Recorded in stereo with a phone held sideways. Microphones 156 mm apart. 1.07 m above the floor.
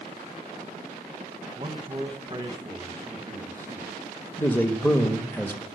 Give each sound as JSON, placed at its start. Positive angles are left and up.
{"t": 1.6, "sound": "a man speaking", "side_deg": -35, "distance_m": 1.3}
{"t": 4.4, "sound": "a man speaking", "side_deg": 15, "distance_m": 1.0}